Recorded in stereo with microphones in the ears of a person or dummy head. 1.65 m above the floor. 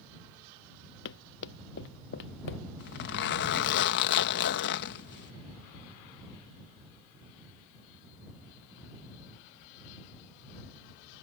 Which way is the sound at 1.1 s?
65° left (ahead or behind).